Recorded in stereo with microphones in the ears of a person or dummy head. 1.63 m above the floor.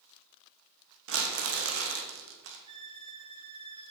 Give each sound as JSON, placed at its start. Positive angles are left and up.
{"t": 1.1, "sound": "crumpling", "side_deg": -70, "distance_m": 2.5}
{"t": 2.7, "sound": "a violin", "side_deg": -25, "distance_m": 2.5}